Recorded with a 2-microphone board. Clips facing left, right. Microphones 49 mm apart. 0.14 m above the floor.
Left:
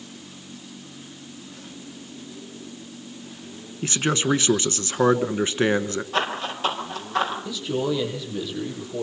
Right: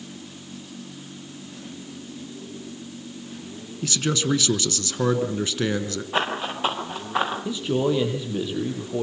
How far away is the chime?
I don't hear a chime.